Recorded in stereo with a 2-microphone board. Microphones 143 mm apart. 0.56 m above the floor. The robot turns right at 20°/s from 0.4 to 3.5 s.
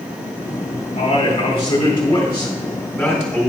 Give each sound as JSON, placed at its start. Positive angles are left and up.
{"t": 1.0, "sound": "a man speaking", "azimuth_deg": 120, "distance_m": 3.0}